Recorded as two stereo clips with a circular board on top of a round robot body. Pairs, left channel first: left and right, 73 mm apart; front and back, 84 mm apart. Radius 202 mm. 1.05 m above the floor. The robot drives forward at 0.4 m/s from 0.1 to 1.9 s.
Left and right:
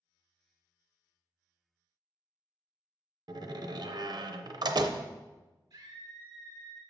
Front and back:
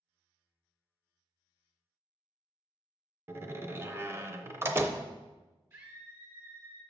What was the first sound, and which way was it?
A door slam, 115° right.